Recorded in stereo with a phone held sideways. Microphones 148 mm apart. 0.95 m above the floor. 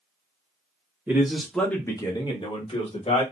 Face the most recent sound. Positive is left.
turn(degrees=45)  # may be behind; listen again after turning